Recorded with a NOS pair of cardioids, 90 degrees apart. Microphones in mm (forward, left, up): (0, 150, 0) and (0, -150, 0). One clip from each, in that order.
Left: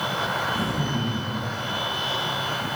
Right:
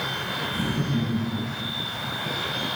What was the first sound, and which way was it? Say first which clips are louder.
Laughter: left 2 dB; 20° right.